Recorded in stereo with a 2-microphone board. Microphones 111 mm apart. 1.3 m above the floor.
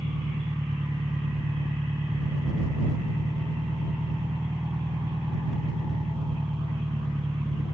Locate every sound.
0.0 s an engine running: 40° right (ahead or behind)